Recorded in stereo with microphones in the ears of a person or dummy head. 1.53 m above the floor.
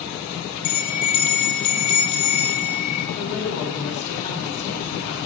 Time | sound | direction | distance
0.6 | a bell | 30° left (ahead or behind) | 1.8 m
3.1 | a woman speaking | 35° left (ahead or behind) | 2.5 m